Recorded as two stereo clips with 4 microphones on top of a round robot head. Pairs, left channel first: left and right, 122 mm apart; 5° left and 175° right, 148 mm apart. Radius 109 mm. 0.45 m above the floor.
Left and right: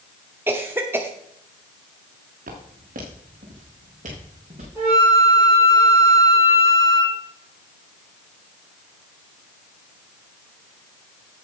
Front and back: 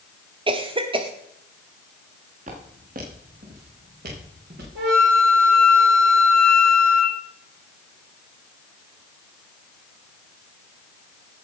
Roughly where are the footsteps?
Behind right.